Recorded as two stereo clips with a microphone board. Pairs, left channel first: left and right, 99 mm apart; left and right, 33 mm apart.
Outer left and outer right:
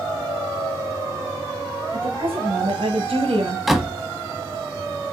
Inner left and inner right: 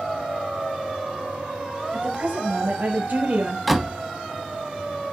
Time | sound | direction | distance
1.9 | a woman speaking | 70° right (ahead or behind) | 4 m
3.7 | a door slam | centre (ahead or behind) | 0.9 m